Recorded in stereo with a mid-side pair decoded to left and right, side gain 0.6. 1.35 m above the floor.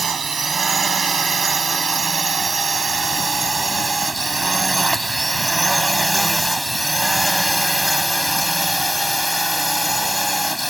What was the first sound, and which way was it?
A drone, 30° right.